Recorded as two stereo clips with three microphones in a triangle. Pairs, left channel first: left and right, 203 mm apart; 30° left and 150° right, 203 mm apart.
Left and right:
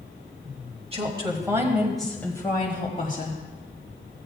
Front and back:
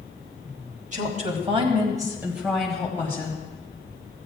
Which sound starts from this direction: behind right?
A woman speaking, at 0.9 s.